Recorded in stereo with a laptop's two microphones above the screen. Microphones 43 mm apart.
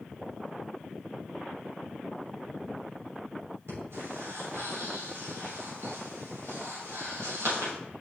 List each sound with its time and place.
3.7 s breathing: 85° right, 3 m